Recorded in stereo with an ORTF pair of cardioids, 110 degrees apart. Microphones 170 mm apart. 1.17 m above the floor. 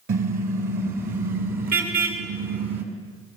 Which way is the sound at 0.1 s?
60° right.